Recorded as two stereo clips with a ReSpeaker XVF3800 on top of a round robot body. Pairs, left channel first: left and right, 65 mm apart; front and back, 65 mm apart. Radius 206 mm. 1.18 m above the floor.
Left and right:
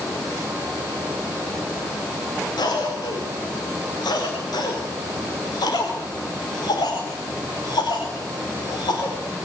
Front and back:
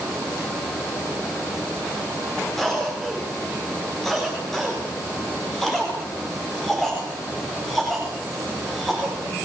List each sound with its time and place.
2.6 s a cough: 85° left, 4.5 m